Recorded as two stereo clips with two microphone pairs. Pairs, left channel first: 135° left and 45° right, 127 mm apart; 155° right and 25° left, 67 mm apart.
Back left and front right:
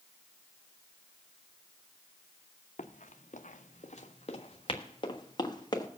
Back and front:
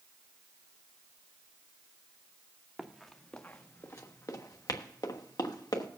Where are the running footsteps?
115° left, 1.0 m; by 5.9 s 170° right, 2 m.